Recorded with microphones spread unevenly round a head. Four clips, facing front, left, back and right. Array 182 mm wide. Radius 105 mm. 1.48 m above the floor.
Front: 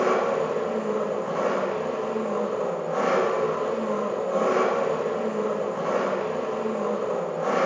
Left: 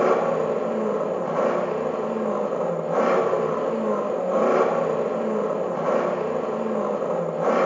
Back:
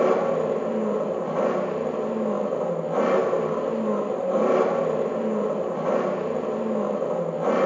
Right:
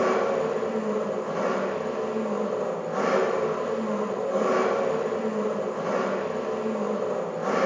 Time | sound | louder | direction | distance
0.0 | an engine running | left 3 dB, back 2 dB | 95° left | 1.0 m